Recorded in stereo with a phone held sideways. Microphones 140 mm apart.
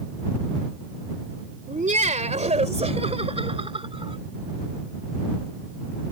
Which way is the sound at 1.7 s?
65° right (ahead or behind).